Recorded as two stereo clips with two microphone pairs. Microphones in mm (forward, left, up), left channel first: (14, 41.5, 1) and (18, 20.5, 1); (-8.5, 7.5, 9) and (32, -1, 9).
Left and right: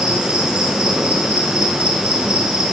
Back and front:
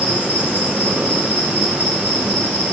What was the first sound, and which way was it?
An insect, 70° right.